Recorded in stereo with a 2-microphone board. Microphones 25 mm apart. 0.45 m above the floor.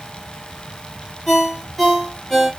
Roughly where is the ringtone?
Centre.